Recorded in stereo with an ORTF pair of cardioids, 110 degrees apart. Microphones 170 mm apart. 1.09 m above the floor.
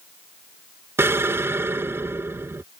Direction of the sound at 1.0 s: 15° right.